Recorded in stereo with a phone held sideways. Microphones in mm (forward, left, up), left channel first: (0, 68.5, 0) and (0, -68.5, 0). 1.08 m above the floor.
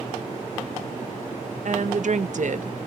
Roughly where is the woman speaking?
Right.